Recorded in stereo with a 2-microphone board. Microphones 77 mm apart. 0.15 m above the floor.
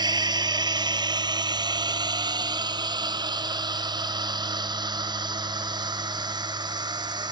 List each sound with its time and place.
0.0 s a drone: 65° right (ahead or behind)